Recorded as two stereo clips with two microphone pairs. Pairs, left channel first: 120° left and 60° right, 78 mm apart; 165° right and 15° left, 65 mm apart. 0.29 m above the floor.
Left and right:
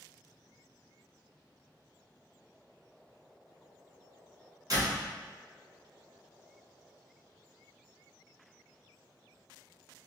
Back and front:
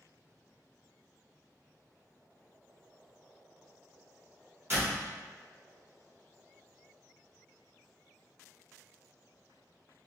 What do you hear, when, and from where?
4.7 s a door slam: 30° right, 1.9 m